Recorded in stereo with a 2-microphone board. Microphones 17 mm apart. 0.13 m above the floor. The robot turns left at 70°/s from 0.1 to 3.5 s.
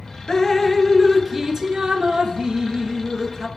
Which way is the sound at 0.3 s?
50° left.